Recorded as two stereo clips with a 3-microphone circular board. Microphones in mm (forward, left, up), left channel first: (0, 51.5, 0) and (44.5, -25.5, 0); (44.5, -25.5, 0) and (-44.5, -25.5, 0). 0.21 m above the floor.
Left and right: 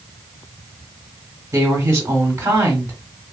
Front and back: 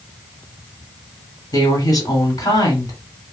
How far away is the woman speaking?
About 1.5 m.